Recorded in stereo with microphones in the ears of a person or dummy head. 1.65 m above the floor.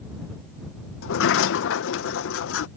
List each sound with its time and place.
1.0 s a sliding door: 85° left